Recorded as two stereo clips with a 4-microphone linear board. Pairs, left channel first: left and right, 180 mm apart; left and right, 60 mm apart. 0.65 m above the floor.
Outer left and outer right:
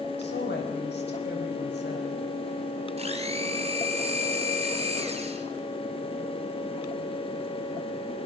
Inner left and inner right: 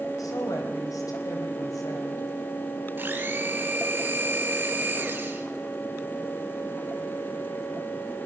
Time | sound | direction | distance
0.2 | a woman speaking | 75° left (ahead or behind) | 4 m
3.0 | a blender | 35° right (ahead or behind) | 2.5 m